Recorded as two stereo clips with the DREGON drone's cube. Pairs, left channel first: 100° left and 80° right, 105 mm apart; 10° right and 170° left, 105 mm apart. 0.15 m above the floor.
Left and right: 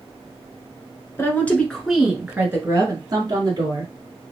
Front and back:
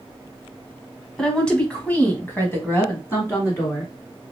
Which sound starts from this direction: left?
A woman speaking, at 1.2 s.